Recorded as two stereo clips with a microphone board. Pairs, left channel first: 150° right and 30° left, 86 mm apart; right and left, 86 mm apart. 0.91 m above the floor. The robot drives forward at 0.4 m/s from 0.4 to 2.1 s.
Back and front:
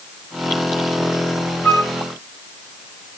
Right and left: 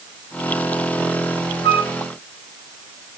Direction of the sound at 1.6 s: 75° right.